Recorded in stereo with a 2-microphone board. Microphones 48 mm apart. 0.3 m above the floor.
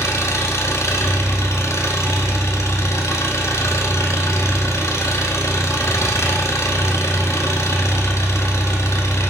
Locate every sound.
0.0 s an engine running: 80° left, 1.2 m